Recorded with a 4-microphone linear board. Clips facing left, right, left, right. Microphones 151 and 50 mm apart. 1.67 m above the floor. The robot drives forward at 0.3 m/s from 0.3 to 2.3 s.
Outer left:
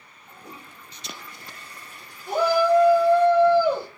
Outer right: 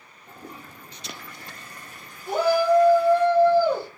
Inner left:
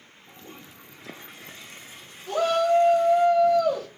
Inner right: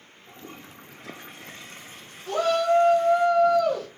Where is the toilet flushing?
60° right (ahead or behind), 1.2 m; by 3.3 s 45° right (ahead or behind), 1.5 m.